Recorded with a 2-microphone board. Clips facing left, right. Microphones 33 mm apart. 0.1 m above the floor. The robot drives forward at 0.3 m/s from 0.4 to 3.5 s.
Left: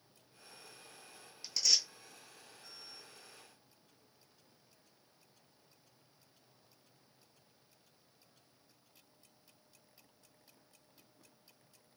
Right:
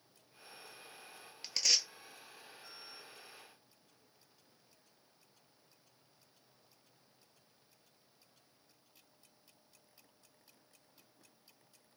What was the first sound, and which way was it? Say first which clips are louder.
Tearing paper: even; 45° right (ahead or behind).